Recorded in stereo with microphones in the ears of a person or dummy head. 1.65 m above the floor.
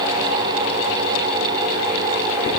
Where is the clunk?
No clunk in this recording.